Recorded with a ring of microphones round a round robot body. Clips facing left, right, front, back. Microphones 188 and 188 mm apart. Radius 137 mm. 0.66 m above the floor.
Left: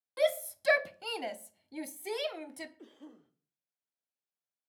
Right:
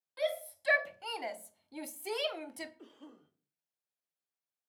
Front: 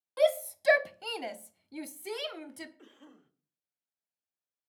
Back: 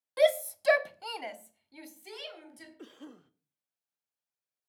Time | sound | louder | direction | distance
0.2 | a shout | left 5 dB, back 1 dB | 105° left | 0.8 m
2.8 | a cough | left 2 dB, back 7 dB | 170° left | 0.9 m